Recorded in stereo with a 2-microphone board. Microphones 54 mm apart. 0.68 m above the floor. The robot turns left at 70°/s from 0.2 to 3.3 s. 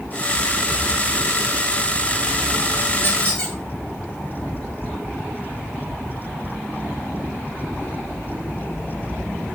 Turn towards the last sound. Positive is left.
turn(degrees=15)  # may be behind; listen again after turning